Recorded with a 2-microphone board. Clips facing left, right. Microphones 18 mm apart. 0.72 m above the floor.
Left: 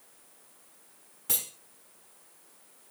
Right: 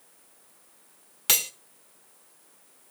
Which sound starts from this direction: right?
Cutlery clinking, at 1.3 s.